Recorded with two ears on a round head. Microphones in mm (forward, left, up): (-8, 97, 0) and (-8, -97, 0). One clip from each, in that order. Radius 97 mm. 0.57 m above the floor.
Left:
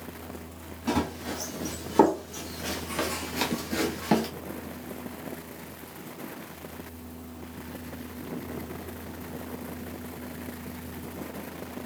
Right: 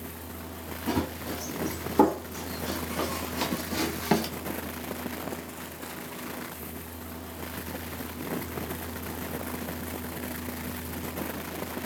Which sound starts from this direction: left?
Running footsteps, at 0.9 s.